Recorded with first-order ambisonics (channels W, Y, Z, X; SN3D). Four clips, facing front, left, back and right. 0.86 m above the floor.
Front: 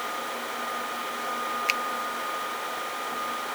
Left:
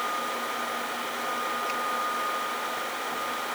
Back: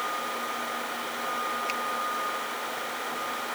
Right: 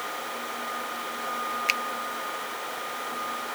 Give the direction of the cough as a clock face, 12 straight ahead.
No cough in this recording.